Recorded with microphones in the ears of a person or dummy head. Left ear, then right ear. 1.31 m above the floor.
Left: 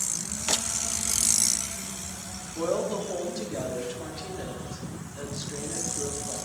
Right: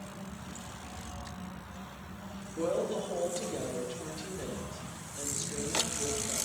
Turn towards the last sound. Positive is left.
turn(degrees=35)  # may be behind; listen again after turning